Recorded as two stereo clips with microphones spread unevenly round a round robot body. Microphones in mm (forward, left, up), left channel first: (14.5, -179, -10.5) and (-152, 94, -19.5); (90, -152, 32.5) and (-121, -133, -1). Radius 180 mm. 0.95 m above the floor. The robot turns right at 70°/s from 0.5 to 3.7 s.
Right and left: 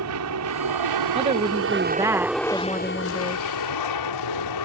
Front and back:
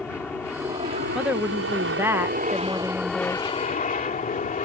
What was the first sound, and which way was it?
An aircraft, 80° left.